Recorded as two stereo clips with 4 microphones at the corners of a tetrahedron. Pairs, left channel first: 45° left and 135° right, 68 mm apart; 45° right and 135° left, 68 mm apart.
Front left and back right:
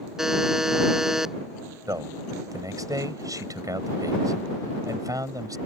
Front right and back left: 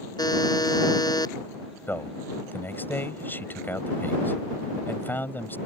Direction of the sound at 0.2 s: 50° right.